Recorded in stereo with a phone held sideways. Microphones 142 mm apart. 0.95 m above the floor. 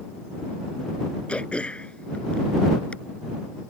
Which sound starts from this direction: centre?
Throat clearing, at 1.3 s.